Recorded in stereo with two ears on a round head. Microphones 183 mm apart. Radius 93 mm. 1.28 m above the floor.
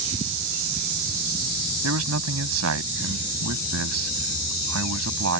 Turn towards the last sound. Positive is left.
turn(degrees=-85)